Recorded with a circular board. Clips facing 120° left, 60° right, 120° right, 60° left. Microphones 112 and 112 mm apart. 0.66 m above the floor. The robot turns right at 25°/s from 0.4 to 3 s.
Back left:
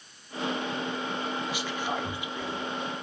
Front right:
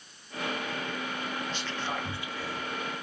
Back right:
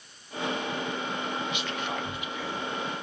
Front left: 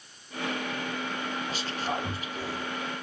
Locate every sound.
1.5 s whispering: 45° left, 0.6 m; by 2.7 s 75° left, 0.6 m